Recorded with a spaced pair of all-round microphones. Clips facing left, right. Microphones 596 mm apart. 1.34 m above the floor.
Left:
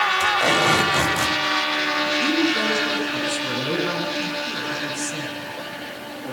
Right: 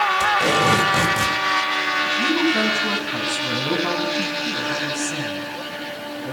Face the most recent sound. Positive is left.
turn(degrees=-75)  # may be behind; listen again after turning